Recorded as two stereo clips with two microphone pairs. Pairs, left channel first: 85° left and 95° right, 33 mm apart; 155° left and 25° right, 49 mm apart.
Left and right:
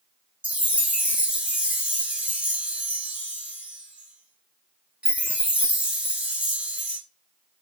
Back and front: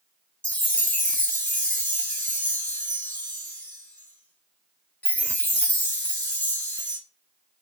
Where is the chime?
145° right, 1.2 m.